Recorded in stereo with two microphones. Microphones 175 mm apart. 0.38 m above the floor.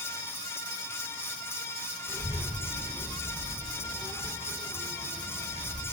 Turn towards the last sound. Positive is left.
turn(degrees=20)  # may be behind; listen again after turning